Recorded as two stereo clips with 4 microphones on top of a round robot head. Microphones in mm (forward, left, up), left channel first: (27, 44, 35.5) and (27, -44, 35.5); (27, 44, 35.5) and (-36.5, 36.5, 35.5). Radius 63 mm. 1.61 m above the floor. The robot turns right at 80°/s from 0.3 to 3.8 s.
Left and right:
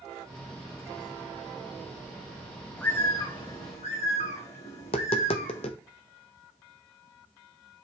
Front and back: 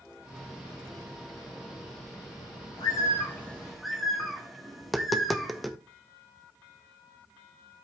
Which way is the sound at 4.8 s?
95° left.